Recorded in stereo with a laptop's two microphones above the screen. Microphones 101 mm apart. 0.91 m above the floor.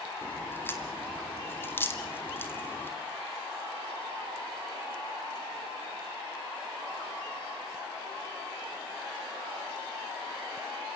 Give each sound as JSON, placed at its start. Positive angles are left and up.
{"t": 0.2, "sound": "a crack", "side_deg": 20, "distance_m": 2.5}